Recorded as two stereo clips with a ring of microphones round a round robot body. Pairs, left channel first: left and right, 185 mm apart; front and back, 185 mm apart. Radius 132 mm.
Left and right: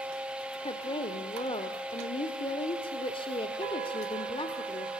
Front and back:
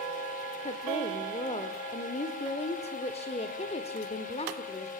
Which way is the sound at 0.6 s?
40° left.